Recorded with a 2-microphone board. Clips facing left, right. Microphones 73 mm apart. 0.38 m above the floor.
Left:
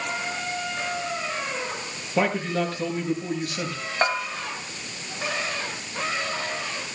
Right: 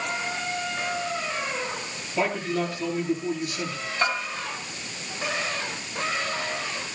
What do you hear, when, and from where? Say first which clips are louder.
2.2 s a man speaking: left 2 dB; 50° left (ahead or behind), 6 m
4.0 s a bell: left 2 dB; 40° left (ahead or behind), 3.5 m